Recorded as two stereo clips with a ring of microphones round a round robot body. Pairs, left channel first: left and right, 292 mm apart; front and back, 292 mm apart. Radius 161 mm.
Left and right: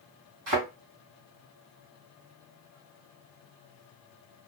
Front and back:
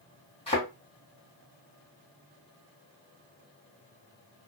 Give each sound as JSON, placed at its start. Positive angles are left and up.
{"t": 0.5, "sound": "a thud", "azimuth_deg": -70, "distance_m": 1.9}